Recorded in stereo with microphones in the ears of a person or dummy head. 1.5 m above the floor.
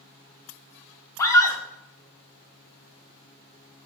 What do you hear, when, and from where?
1.2 s a scream: 15° left (ahead or behind), 0.7 m